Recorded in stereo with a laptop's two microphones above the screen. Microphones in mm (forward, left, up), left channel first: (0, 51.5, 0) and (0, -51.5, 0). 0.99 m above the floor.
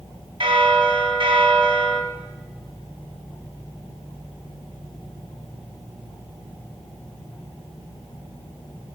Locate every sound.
0.4 s a bell: 60° right (ahead or behind), 1.6 m